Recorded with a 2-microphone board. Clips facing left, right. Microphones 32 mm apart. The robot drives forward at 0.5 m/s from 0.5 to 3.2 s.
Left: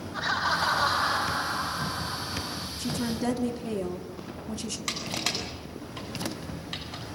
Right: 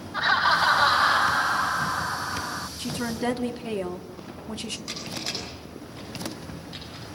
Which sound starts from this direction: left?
Crushing, at 4.9 s.